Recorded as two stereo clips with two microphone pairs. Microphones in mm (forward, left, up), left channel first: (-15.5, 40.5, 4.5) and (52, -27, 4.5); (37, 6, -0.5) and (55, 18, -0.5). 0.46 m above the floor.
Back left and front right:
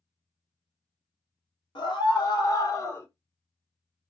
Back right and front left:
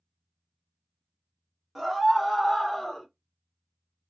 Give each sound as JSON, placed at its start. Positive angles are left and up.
{"t": 1.8, "sound": "a scream", "azimuth_deg": 110, "distance_m": 1.8}